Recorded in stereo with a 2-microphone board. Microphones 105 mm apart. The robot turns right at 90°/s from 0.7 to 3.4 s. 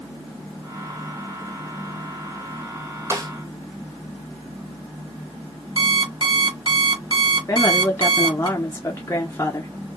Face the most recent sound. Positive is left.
turn(degrees=25)  # may be behind; listen again after turning